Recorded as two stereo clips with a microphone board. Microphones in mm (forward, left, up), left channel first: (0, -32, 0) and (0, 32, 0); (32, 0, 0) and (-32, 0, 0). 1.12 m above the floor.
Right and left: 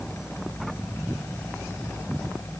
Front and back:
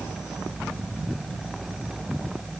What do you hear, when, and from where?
Only background noise.